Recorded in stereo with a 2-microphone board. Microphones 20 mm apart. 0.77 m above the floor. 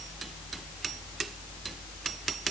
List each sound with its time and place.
Only background noise.